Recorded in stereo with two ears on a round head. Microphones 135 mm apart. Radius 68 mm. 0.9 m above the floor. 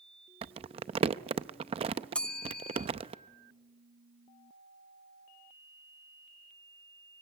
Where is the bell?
5° left (ahead or behind), 0.6 m.